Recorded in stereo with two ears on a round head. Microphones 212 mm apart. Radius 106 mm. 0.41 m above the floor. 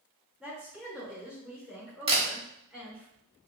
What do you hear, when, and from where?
0.4 s a woman speaking: 5° right (ahead or behind), 1.1 m
2.1 s a camera shutter: 25° right (ahead or behind), 1.1 m